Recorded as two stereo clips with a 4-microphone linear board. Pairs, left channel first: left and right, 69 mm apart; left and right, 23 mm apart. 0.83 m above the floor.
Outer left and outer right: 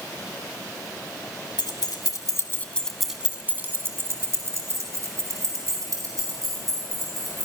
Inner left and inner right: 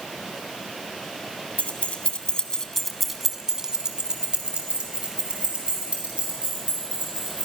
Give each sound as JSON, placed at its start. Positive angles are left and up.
{"t": 1.6, "sound": "keys jangling", "side_deg": 80, "distance_m": 1.6}